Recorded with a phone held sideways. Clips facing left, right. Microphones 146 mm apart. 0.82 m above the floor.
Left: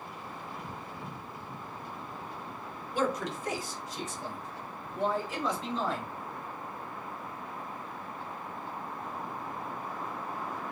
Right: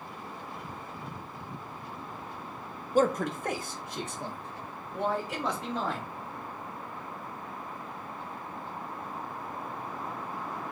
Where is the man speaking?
45° right (ahead or behind), 0.7 m; by 6.0 s 65° right (ahead or behind), 3 m.